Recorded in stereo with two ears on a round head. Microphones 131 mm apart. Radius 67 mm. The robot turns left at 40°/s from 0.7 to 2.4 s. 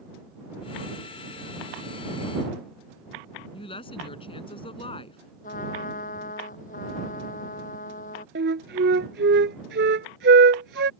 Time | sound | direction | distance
3.5 | a woman speaking | 40° left (ahead or behind) | ?
5.4 | a trumpet | 60° left (ahead or behind) | ?
8.3 | a flute | 85° right | ?